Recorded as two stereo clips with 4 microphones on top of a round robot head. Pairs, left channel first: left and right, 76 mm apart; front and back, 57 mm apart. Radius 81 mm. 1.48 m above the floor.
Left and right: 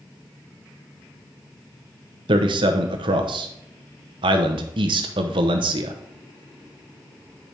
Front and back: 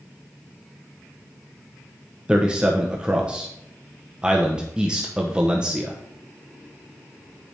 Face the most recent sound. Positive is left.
turn(degrees=-105)